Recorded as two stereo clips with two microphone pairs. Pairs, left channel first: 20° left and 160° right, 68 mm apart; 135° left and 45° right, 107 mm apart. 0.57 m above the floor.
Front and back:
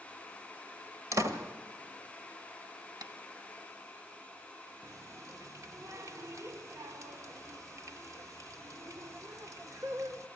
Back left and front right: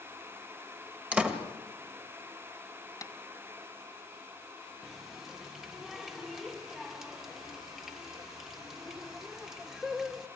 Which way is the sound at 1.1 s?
125° right.